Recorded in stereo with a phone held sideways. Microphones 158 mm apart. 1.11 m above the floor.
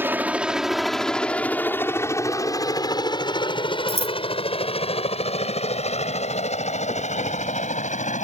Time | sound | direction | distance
0.0 | a helicopter | 15° right (ahead or behind) | ?
3.9 | scissors | 40° right (ahead or behind) | ?